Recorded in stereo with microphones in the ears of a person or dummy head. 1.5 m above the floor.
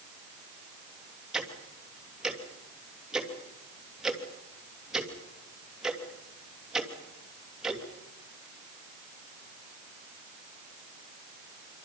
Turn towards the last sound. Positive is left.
turn(degrees=-5)  # may be behind; listen again after turning